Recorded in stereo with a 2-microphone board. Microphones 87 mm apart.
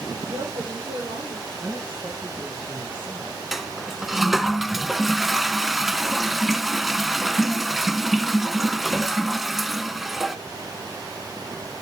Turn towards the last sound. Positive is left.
turn(degrees=-5)  # may be behind; listen again after turning